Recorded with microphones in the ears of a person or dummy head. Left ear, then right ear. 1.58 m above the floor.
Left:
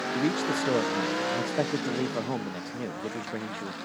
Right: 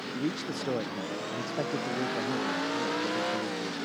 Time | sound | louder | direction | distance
0.1 | a man speaking | left 6 dB | 25° left (ahead or behind) | ?